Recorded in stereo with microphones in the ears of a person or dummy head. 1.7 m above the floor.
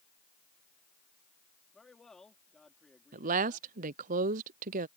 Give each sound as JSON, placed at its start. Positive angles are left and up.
{"t": 1.7, "sound": "a man speaking", "side_deg": 5}
{"t": 3.1, "sound": "a woman speaking", "side_deg": -40}